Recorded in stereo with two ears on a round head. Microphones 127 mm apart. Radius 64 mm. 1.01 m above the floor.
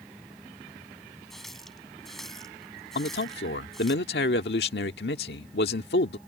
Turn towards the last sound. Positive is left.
turn(degrees=85)